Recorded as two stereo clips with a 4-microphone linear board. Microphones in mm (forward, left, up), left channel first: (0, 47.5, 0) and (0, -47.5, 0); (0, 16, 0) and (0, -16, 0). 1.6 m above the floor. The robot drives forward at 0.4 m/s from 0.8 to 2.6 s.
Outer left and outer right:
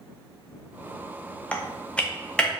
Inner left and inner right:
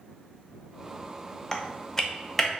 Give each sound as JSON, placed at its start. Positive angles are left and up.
{"t": 1.5, "sound": "typing on a keyboard", "side_deg": 15, "distance_m": 0.6}